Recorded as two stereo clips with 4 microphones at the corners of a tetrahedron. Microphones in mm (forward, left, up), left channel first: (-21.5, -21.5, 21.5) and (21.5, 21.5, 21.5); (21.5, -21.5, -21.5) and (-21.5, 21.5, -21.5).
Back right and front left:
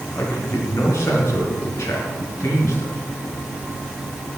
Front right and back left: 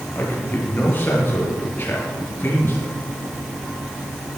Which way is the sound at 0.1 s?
100° right.